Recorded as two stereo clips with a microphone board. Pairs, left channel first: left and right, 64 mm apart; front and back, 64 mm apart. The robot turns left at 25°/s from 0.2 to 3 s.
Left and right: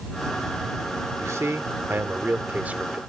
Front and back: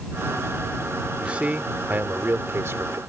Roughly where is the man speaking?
Right.